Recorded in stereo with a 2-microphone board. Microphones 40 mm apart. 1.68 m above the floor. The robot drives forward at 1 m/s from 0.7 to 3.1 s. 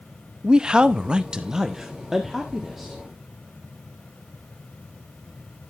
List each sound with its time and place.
0.4 s a man speaking: 20° right (ahead or behind), 0.6 m; by 3.0 s 5° right (ahead or behind), 2 m